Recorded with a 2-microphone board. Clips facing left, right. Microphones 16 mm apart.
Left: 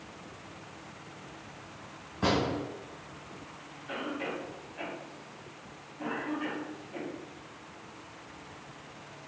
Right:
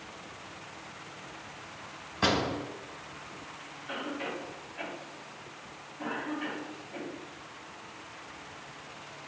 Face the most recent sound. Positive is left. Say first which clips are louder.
# left 1 dB
turn(degrees=-5)  # may be behind; listen again after turning